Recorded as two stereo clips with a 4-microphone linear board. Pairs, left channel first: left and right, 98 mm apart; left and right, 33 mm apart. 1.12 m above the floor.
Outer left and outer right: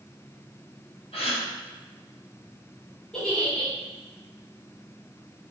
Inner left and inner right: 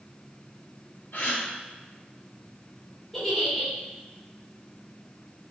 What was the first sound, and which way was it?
A gasp, 80° left.